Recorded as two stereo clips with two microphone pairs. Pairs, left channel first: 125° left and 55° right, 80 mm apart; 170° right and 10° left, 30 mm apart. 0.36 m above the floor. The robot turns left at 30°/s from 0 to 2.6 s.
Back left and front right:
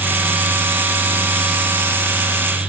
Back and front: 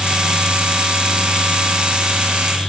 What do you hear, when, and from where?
Only background noise.